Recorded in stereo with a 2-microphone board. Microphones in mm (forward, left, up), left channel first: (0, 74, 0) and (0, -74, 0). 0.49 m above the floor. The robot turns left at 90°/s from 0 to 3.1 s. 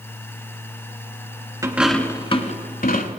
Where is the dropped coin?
155° right, 0.8 m; by 3.1 s 70° left, 0.8 m.